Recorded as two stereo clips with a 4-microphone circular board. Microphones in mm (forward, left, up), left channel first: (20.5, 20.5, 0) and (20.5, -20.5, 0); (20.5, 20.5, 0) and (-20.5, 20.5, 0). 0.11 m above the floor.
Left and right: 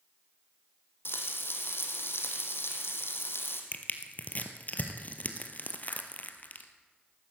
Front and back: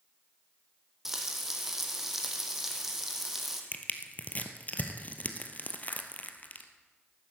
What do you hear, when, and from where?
1.1 s frying: 100° left, 2.0 m
3.7 s crushing: 45° left, 1.3 m